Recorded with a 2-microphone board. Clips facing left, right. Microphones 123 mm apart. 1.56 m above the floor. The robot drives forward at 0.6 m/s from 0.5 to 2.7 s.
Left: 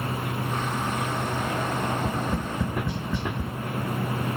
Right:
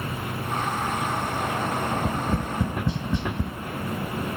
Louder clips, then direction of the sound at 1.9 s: Right 1 dB; 15° right (ahead or behind).